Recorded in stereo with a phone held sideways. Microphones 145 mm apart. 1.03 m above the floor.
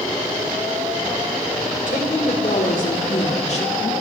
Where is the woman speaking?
70° left (ahead or behind), 4 m; by 3.9 s 40° left (ahead or behind), 2 m.